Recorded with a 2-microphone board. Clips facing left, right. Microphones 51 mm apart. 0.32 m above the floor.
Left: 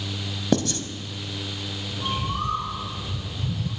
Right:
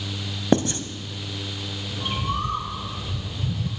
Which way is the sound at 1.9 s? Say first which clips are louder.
Right 1 dB; 40° right (ahead or behind).